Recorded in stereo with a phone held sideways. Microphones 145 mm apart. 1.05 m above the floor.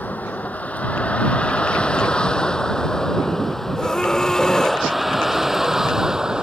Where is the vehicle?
10° left (ahead or behind); by 6.4 s 5° right (ahead or behind).